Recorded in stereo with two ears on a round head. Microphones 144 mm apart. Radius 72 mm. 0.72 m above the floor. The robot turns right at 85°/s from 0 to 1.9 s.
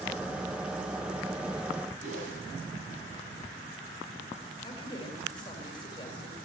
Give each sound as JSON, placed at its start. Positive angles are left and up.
{"t": 2.0, "sound": "a whoosh", "side_deg": -50, "distance_m": 5.0}
{"t": 4.6, "sound": "a woman speaking", "side_deg": 30, "distance_m": 3.0}